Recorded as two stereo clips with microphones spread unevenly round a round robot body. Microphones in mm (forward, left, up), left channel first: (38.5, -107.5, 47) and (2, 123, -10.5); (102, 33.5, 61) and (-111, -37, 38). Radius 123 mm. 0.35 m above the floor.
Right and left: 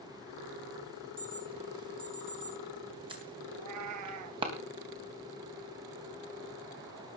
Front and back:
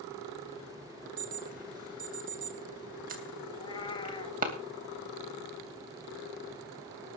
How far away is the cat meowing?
About 1.3 m.